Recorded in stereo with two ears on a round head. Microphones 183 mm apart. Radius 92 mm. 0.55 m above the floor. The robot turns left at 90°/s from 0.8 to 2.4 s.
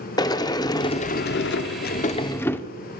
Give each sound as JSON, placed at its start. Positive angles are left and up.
{"t": 0.2, "sound": "a sliding door", "azimuth_deg": 155, "distance_m": 0.6}